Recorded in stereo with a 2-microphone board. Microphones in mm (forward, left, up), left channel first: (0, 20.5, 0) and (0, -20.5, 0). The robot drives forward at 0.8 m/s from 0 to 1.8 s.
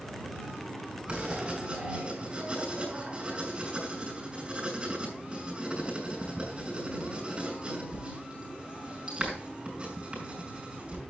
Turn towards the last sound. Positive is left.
turn(degrees=-20)  # may be behind; listen again after turning